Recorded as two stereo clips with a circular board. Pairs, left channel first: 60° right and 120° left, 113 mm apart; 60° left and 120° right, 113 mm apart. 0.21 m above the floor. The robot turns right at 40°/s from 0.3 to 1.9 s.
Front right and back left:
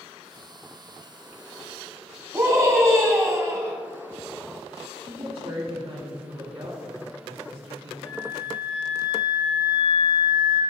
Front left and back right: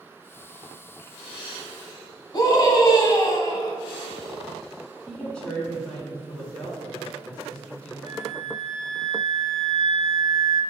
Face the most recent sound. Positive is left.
turn(degrees=35)